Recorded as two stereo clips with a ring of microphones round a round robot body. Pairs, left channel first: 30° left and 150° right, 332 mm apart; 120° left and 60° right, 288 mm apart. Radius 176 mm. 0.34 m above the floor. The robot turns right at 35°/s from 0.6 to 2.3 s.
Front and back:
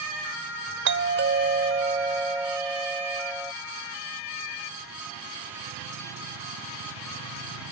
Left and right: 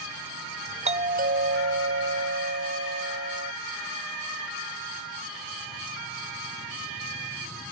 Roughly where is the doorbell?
Behind right.